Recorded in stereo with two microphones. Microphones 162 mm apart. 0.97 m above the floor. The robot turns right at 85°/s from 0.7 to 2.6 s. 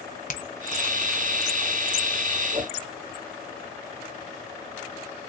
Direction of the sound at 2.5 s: 30° right (ahead or behind).